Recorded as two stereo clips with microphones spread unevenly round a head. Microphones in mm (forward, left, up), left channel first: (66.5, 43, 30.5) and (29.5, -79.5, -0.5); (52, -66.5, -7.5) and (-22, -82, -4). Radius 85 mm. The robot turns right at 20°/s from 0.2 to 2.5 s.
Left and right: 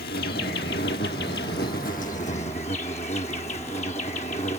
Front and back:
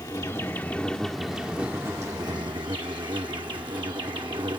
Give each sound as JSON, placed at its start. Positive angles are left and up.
{"t": 0.0, "sound": "an insect", "azimuth_deg": 80}